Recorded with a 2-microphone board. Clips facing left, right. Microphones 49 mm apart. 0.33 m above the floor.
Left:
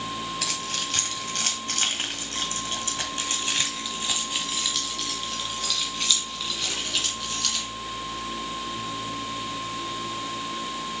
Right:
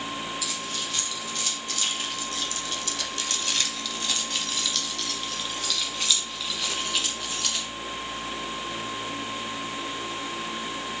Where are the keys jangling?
65° left (ahead or behind), 1.7 m; by 7.7 s 10° right (ahead or behind), 3 m.